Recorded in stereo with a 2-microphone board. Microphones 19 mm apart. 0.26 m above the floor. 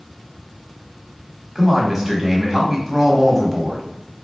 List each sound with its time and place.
1.6 s a man speaking: 15° right (ahead or behind), 1.2 m